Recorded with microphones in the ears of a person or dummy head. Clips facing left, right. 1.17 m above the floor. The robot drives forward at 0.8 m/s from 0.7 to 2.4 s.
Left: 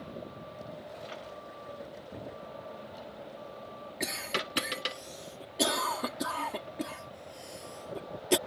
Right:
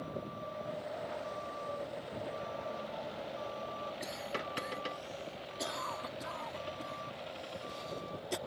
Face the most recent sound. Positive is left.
turn(degrees=80)